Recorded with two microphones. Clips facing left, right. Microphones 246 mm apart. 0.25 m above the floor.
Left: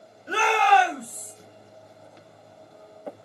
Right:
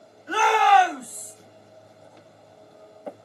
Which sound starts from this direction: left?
A shout, at 0.3 s.